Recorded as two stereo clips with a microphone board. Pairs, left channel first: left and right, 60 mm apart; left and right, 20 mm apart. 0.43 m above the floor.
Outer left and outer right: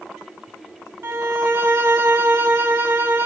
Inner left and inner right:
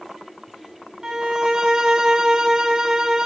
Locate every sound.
1.0 s a violin: 45° right (ahead or behind), 1.0 m